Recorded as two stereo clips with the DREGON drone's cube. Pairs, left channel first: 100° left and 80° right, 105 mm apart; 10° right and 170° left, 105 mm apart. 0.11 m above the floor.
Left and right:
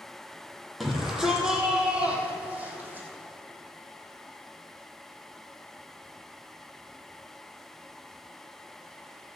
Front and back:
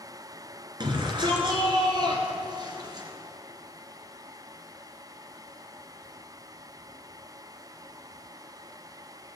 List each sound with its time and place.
0.8 s a shout: 170° right, 2.5 m; by 3.1 s 150° right, 3.5 m